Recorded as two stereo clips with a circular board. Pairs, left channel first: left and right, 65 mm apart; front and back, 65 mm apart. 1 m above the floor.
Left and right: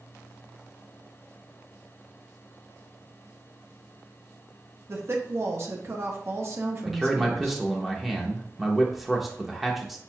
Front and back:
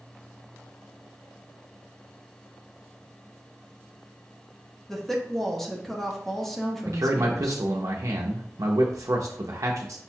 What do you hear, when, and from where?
4.9 s a woman speaking: 85° right, 0.8 m
6.8 s a man speaking: 175° right, 0.6 m